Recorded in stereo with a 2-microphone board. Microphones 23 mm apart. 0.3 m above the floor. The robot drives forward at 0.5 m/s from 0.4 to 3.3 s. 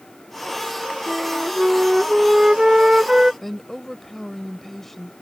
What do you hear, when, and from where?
1.1 s a flute: 25° right (ahead or behind)
3.4 s a woman speaking: 10° left (ahead or behind)